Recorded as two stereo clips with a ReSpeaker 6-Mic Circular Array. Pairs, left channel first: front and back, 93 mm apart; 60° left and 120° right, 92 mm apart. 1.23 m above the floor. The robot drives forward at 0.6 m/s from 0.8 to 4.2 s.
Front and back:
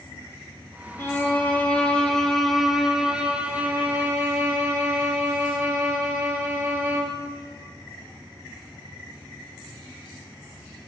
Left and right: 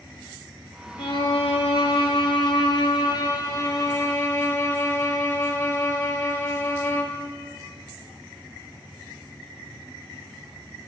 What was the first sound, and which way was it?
A violin, 60° left.